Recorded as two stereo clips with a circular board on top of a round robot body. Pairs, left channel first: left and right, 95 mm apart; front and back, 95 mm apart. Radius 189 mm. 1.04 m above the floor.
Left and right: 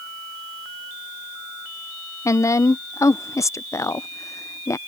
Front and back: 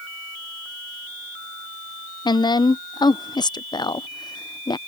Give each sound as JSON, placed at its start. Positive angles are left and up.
{"t": 2.2, "sound": "a woman speaking", "azimuth_deg": 35}